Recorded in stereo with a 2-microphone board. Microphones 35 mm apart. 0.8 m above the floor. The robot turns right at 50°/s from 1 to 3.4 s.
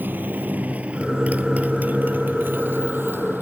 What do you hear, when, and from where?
0.0 s a motorcycle: 65° right (ahead or behind); by 3.4 s 80° right